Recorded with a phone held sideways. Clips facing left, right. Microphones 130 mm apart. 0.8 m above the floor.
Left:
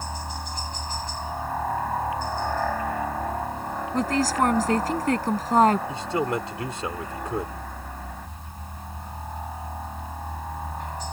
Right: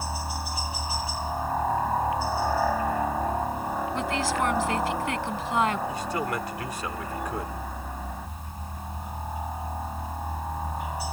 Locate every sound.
0.0 s a helicopter: 5° right (ahead or behind)
3.9 s a woman speaking: 40° left (ahead or behind)
5.9 s a man speaking: 25° left (ahead or behind)